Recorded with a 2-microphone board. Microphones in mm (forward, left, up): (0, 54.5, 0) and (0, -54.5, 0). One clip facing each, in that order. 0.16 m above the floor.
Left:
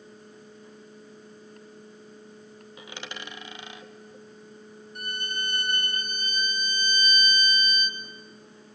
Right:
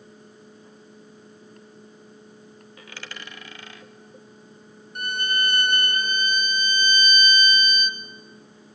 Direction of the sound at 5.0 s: 70° right (ahead or behind).